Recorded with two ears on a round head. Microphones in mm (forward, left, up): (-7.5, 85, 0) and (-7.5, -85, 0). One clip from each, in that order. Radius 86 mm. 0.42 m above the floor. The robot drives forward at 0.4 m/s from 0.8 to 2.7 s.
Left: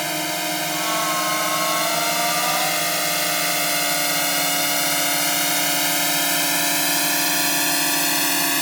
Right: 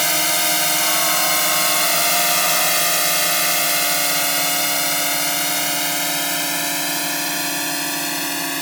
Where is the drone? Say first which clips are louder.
Right 5 dB; 40° right (ahead or behind); by 8.6 s 10° left (ahead or behind).